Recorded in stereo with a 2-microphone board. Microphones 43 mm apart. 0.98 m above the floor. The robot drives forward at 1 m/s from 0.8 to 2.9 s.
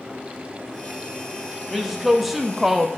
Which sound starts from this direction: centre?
A woman speaking, at 1.7 s.